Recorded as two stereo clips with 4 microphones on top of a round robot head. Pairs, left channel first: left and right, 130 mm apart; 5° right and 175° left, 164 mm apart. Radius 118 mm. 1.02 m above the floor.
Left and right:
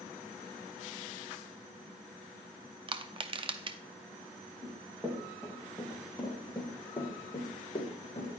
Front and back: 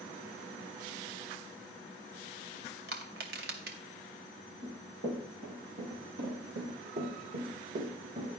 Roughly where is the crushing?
Behind right.